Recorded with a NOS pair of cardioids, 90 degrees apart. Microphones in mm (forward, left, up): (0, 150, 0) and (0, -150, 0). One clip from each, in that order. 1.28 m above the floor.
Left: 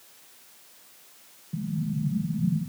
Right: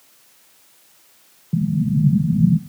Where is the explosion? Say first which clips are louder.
Right 10 dB; 65° right, 0.9 m.